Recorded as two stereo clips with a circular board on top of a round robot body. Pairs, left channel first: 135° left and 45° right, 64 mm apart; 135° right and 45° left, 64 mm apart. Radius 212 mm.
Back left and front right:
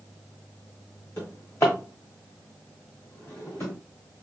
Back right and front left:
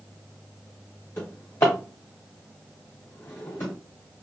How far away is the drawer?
About 0.8 m.